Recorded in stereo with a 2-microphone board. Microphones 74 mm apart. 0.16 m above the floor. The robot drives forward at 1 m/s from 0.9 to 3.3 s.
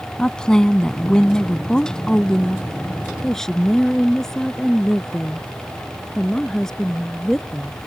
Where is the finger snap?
I don't hear a finger snap.